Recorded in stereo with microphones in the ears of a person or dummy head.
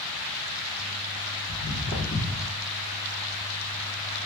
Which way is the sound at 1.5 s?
30° left (ahead or behind).